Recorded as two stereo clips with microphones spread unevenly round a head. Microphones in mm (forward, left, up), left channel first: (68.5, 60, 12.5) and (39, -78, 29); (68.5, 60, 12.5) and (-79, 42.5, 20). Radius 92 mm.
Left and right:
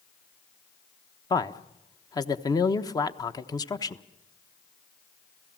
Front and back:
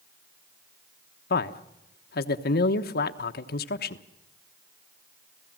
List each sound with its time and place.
1.3 s a man speaking: 10° left, 1.1 m